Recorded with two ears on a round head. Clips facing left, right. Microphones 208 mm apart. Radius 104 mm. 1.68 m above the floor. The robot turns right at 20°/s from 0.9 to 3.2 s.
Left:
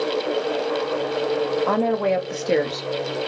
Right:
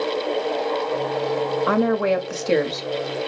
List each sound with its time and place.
1.7 s a woman speaking: 20° right, 0.7 m; by 3.3 s 10° left, 0.7 m